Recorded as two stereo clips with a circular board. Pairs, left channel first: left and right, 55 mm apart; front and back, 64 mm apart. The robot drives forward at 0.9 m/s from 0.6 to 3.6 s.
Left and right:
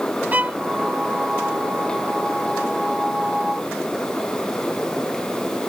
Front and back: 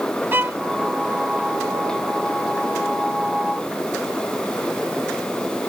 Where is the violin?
140° right.